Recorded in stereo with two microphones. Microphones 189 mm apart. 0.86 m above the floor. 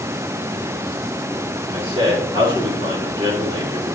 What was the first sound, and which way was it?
A man speaking, 30° right (ahead or behind).